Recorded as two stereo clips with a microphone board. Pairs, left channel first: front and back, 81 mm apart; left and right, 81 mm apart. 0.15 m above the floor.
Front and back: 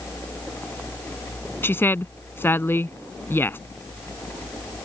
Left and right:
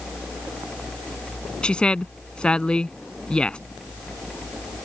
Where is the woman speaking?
25° left.